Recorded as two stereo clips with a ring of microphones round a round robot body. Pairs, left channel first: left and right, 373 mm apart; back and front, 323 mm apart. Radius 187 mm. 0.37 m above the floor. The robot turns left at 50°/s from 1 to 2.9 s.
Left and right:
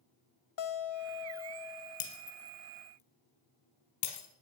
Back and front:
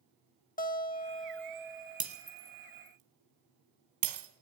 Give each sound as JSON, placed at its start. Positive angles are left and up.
{"t": 0.6, "sound": "a guitar", "azimuth_deg": 115, "distance_m": 1.6}
{"t": 2.0, "sound": "breaking glass", "azimuth_deg": 75, "distance_m": 3.5}